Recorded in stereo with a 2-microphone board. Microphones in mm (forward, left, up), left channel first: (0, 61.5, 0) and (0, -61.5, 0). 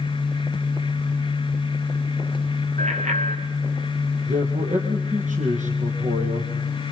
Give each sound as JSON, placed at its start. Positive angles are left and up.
{"t": 2.8, "sound": "a bicycle bell", "side_deg": -65, "distance_m": 2.0}
{"t": 4.2, "sound": "a man speaking", "side_deg": -70, "distance_m": 3.5}